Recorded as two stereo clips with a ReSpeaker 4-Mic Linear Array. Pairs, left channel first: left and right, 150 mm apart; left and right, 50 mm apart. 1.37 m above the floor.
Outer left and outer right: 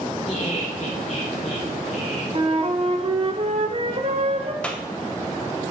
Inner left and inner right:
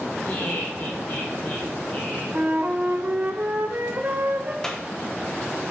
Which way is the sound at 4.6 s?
10° left (ahead or behind).